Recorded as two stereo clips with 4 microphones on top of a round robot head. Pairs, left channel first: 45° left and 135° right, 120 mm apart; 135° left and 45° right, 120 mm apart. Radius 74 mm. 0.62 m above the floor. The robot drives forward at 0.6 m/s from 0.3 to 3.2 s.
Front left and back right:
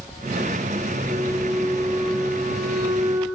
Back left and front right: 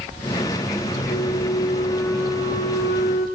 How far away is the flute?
About 6.5 m.